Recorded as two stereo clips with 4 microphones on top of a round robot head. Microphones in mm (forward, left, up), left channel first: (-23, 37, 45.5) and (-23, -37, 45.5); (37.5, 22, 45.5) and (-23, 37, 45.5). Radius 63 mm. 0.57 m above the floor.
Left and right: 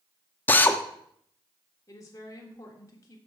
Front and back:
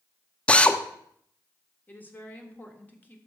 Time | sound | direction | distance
0.5 | a drill | 40° left | 0.8 m
1.9 | a woman speaking | 45° left | 1.5 m